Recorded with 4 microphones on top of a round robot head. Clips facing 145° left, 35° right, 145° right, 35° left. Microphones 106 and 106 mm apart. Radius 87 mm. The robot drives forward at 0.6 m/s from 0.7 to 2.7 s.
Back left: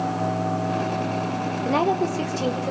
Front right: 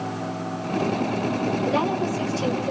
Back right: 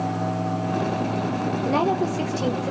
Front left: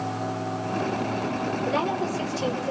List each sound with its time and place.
1.6 s a woman speaking: straight behind, 3 m